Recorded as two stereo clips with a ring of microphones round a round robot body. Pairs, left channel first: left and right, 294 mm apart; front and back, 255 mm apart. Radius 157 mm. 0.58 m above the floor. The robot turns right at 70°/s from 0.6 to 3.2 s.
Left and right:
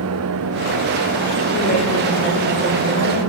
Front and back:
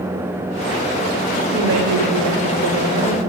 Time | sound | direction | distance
1.5 | a woman speaking | 135° left | 2.5 m